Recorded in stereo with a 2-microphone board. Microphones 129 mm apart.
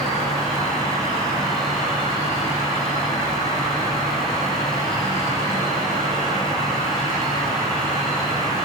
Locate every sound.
0.0 s an insect: 80° right, 2.5 m